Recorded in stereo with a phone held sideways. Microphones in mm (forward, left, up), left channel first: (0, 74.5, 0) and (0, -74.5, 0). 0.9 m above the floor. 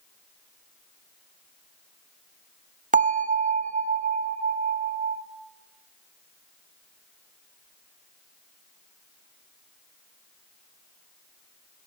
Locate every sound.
2.9 s a bell: 60° right (ahead or behind), 0.6 m